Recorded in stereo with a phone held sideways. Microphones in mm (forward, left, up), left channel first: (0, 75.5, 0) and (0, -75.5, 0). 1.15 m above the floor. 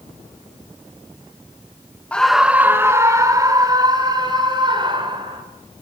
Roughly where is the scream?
Centre.